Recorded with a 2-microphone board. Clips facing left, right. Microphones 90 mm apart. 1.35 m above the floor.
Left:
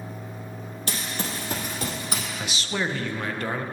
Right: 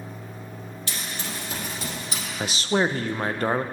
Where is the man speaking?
40° right (ahead or behind), 0.5 m.